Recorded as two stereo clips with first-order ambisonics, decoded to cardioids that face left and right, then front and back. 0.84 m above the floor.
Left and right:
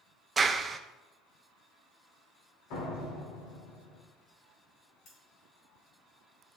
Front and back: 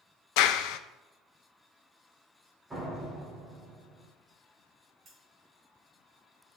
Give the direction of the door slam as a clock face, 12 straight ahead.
9 o'clock.